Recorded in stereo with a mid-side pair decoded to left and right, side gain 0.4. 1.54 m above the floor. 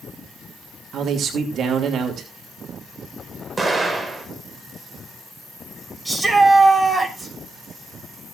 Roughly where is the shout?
Ahead.